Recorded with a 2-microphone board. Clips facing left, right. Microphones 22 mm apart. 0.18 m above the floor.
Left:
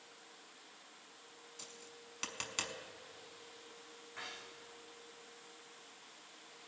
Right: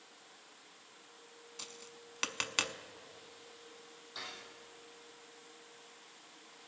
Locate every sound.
1.6 s tapping: 35° right (ahead or behind), 0.5 m
4.2 s cutlery clinking: 80° right, 4.5 m